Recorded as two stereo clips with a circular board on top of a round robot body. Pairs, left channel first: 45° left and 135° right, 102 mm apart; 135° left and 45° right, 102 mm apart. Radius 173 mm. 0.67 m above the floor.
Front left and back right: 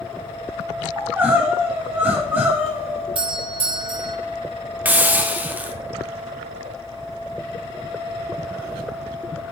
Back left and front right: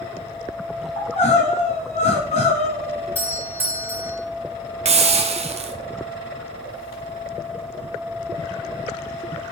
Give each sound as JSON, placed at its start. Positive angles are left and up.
{"t": 1.0, "sound": "crying", "azimuth_deg": 150, "distance_m": 1.1}
{"t": 3.1, "sound": "a doorbell", "azimuth_deg": -110, "distance_m": 2.5}
{"t": 4.8, "sound": "a hiss", "azimuth_deg": -60, "distance_m": 0.7}